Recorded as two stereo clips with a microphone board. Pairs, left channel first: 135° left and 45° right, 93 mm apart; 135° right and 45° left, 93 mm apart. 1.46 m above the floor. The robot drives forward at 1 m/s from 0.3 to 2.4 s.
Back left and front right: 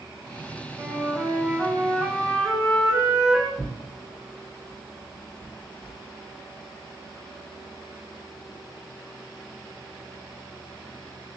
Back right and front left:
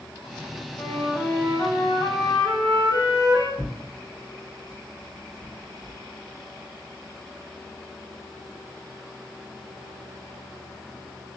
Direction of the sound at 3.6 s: 110° left.